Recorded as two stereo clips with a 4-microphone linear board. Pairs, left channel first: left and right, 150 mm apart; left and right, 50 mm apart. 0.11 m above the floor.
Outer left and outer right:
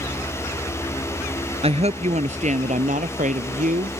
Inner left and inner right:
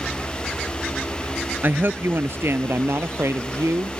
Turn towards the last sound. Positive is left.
turn(degrees=-60)  # may be behind; listen again after turning